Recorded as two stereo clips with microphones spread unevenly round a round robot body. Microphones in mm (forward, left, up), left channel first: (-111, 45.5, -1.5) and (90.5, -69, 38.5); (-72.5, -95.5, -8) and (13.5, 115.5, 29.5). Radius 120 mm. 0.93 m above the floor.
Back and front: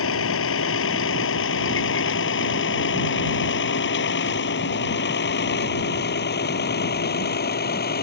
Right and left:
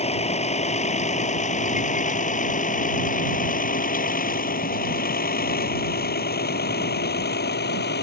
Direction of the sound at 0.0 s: 175° right.